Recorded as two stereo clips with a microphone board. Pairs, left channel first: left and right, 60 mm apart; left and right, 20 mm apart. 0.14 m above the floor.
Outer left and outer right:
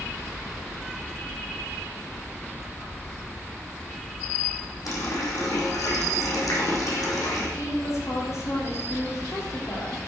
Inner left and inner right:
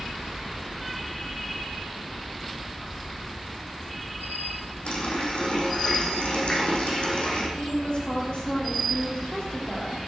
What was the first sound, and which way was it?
A running tap, 75° left (ahead or behind).